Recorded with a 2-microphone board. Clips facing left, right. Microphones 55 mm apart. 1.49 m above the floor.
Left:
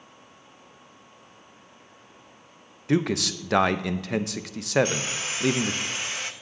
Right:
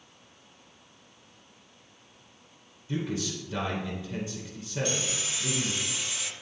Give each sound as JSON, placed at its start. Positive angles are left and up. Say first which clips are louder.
{"t": 2.9, "sound": "a man speaking", "louder": "left 8 dB", "side_deg": 75, "distance_m": 0.6}
{"t": 4.8, "sound": "sawing", "louder": "left 3 dB", "side_deg": 45, "distance_m": 0.7}